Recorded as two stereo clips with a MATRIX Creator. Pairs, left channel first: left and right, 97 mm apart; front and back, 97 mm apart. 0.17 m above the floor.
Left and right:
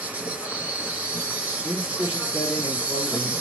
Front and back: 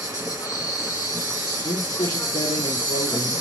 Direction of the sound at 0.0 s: 25° right.